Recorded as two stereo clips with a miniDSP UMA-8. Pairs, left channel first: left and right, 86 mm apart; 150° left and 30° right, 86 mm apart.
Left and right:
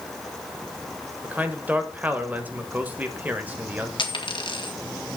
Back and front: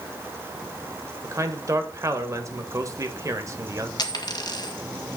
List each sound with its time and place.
1.2 s a man speaking: 30° right, 1.4 m
4.0 s a dropped coin: 115° left, 1.8 m